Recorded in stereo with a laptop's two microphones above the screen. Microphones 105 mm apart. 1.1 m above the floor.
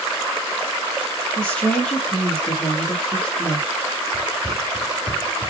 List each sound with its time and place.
1.4 s a woman speaking: 10° left (ahead or behind), 1.0 m
4.1 s running footsteps: 40° right (ahead or behind), 1.4 m; by 5.5 s 5° right (ahead or behind), 1.0 m